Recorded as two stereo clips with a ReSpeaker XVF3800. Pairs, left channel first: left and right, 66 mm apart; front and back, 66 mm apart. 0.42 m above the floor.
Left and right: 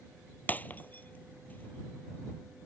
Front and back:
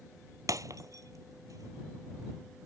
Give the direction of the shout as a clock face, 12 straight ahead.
No shout in this recording.